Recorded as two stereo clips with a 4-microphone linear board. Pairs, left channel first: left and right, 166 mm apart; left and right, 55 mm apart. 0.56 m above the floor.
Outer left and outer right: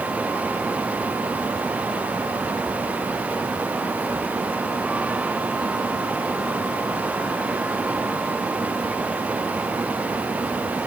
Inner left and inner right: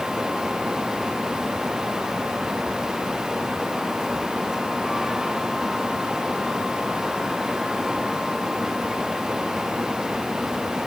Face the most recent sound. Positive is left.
No sound to turn to.